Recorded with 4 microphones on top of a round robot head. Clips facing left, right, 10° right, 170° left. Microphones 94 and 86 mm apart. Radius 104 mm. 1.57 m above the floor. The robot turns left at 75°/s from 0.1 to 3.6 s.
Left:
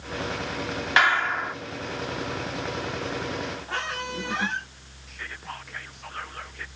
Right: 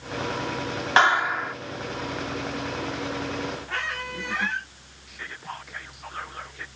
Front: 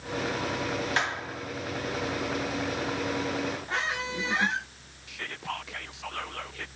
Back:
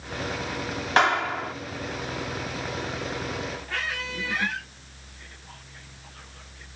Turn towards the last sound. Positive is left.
turn(degrees=-5)